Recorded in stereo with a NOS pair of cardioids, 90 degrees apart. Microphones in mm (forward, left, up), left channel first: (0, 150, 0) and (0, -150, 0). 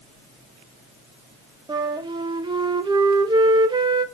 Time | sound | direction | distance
1.7 | a flute | 15° right | 0.9 m